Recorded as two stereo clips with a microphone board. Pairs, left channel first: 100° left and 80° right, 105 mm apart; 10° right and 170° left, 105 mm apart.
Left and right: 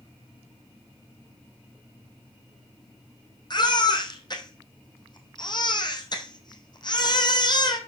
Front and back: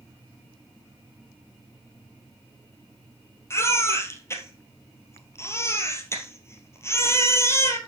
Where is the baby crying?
55° left, 1.8 m.